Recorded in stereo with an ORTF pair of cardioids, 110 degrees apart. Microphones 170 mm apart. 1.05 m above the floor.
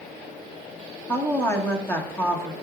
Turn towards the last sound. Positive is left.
turn(degrees=15)